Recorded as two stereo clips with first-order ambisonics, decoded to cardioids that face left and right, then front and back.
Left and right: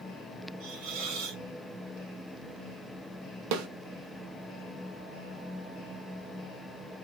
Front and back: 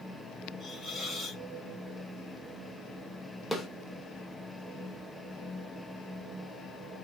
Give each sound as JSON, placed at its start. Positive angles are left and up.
{"t": 0.6, "sound": "a hiss", "azimuth_deg": -95, "distance_m": 2.5}
{"t": 3.5, "sound": "a snare drum", "azimuth_deg": -90, "distance_m": 0.9}